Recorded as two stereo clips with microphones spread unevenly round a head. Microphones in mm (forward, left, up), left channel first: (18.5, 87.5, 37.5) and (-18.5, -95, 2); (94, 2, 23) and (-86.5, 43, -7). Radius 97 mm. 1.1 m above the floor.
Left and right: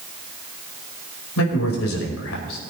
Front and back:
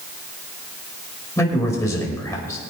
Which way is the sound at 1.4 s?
60° left.